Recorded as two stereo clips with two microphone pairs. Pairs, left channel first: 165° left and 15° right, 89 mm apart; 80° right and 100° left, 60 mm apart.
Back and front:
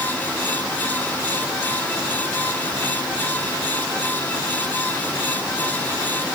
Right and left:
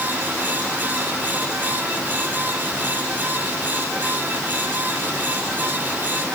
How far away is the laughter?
No laughter in this recording.